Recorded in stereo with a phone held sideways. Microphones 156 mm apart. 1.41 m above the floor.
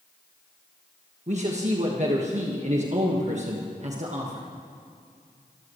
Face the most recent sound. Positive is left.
turn(degrees=-50)  # may be behind; listen again after turning